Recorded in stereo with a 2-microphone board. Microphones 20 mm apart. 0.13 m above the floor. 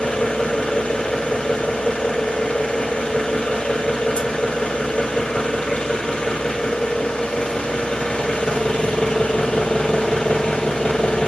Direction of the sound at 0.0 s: 75° left (ahead or behind).